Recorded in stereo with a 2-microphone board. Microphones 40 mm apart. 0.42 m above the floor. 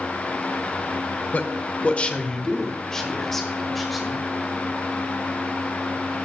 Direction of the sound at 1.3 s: 40° left (ahead or behind).